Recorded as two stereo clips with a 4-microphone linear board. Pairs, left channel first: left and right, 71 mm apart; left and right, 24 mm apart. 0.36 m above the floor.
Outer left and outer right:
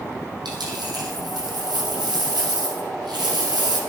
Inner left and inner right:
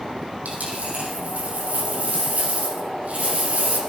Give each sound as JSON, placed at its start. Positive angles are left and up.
{"t": 0.5, "sound": "a dropped coin", "side_deg": -85, "distance_m": 5.0}